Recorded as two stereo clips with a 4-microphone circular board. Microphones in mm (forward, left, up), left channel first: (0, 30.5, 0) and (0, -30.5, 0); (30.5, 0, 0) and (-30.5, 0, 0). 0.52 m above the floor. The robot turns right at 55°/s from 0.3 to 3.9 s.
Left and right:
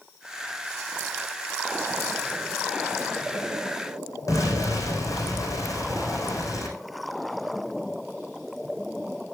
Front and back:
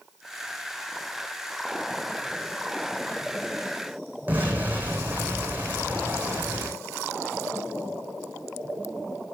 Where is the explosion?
115° left, 4 m.